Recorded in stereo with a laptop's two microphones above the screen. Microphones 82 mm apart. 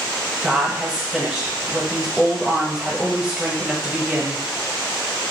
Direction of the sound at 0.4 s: 10° right (ahead or behind).